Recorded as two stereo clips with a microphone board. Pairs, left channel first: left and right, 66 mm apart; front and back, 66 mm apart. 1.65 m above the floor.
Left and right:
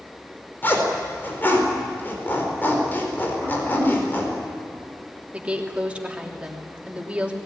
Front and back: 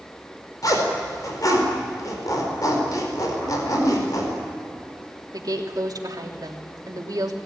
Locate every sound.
0.6 s a zipper: 30° left, 4.5 m
3.4 s throat clearing: 35° left, 8.5 m
5.3 s a woman speaking: 160° right, 3 m